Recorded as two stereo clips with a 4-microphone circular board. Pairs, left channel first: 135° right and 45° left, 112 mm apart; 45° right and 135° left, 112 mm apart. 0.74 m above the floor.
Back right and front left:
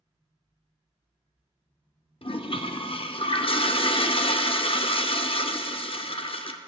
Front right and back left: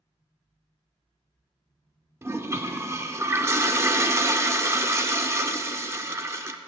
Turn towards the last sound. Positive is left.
turn(degrees=-160)